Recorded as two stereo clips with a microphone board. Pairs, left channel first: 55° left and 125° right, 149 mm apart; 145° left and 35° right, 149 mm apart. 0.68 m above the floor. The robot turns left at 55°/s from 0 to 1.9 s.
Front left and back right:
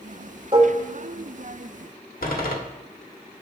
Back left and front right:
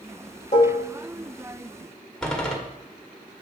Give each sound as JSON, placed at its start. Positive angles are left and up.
{"t": 0.5, "sound": "dishes clattering", "azimuth_deg": -175, "distance_m": 1.3}
{"t": 2.2, "sound": "a door slam", "azimuth_deg": 60, "distance_m": 1.3}